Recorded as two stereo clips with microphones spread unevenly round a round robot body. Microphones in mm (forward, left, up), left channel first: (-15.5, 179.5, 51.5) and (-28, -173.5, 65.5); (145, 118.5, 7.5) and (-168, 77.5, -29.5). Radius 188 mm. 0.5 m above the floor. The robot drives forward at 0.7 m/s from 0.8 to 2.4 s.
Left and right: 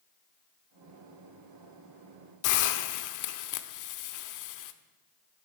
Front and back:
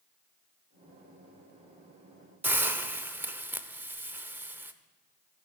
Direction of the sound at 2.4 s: 110° left.